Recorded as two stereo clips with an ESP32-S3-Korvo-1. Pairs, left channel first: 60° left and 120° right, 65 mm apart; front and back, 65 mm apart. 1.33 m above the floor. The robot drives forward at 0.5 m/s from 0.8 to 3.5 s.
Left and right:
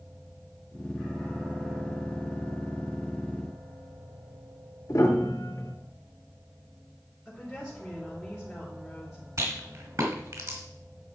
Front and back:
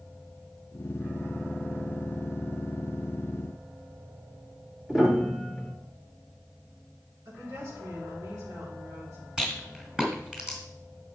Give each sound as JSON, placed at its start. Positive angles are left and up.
{"t": 4.9, "sound": "a piano", "azimuth_deg": 100, "distance_m": 2.0}
{"t": 7.2, "sound": "a woman speaking", "azimuth_deg": 155, "distance_m": 4.0}
{"t": 9.4, "sound": "a rattle", "azimuth_deg": -100, "distance_m": 2.5}